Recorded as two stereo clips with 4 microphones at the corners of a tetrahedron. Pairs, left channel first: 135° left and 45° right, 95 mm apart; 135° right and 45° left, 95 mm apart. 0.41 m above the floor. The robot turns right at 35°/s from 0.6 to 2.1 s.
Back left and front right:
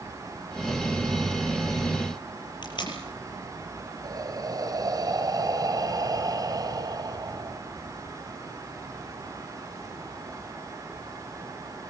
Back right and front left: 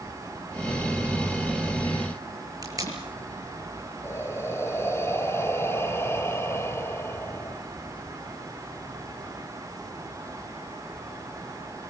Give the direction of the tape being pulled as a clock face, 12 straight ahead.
9 o'clock.